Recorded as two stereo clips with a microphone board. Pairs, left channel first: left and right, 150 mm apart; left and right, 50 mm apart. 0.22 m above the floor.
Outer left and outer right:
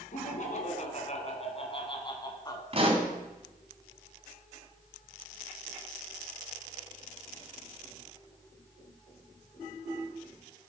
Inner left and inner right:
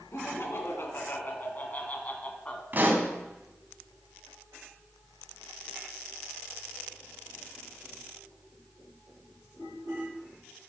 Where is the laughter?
60° left (ahead or behind), 2.5 m; by 2.6 s 25° left (ahead or behind), 1.9 m.